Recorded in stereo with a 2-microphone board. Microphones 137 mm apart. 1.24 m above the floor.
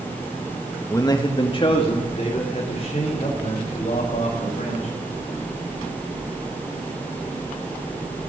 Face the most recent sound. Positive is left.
turn(degrees=50)  # may be behind; listen again after turning